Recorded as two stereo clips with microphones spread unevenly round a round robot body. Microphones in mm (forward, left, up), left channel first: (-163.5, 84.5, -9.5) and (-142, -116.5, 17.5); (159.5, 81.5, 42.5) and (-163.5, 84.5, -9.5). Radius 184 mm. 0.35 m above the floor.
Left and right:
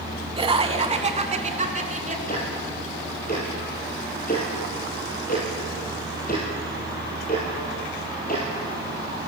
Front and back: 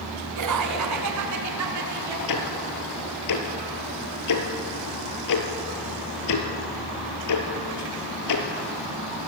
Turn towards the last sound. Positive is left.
turn(degrees=30)